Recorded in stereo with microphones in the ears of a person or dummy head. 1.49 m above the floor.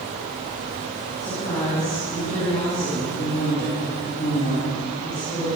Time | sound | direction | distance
1.2 | a woman speaking | 25° left (ahead or behind) | 6 m